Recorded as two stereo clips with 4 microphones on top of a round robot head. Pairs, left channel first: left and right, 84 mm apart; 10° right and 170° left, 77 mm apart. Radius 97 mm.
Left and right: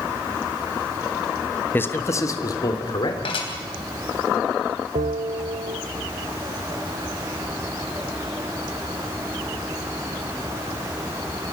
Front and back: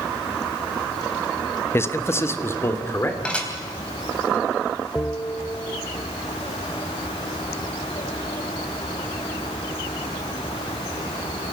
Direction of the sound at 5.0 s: 90° right.